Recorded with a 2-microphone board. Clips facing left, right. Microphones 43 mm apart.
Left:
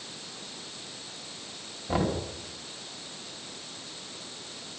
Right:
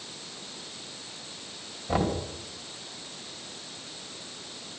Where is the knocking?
Centre (ahead or behind), 4 m.